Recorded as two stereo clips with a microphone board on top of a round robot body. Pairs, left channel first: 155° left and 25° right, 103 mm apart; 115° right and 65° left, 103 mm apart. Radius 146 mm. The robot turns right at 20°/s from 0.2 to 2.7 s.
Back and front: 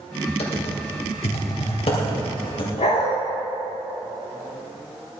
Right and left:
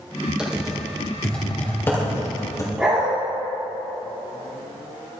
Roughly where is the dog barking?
Behind left.